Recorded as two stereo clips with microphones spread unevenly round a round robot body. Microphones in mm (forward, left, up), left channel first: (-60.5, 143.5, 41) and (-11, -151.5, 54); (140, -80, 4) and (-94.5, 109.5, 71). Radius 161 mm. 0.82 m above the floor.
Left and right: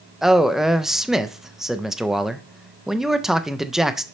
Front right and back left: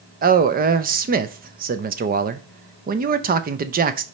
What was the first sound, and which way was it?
A man speaking, 175° right.